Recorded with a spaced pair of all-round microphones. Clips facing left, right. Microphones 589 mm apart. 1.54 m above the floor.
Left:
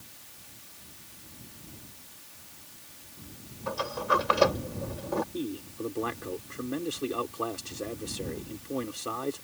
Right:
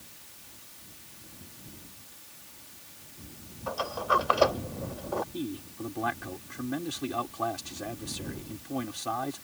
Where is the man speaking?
15° right (ahead or behind).